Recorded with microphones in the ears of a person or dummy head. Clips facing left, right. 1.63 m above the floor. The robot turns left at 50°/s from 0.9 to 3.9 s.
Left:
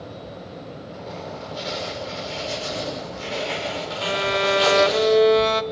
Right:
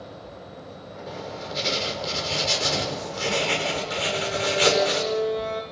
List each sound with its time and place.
1.1 s writing: 5° right, 6 m; by 5.0 s 150° right, 6 m
4.0 s a violin: 80° left, 1.1 m